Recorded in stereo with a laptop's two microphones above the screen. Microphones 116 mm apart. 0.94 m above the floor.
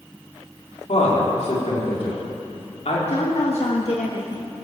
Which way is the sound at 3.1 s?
65° left (ahead or behind).